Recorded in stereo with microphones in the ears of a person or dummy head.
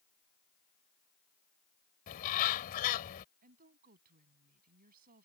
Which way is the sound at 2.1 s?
50° left (ahead or behind).